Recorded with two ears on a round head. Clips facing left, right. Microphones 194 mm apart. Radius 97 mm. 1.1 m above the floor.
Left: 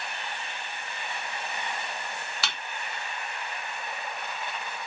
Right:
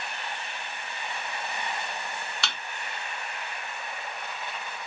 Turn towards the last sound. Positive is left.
turn(degrees=5)  # may be behind; listen again after turning